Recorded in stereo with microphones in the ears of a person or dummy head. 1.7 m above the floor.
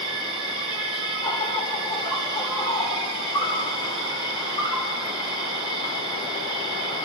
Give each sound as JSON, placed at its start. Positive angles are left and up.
{"t": 0.0, "sound": "an insect", "side_deg": 30, "distance_m": 8.5}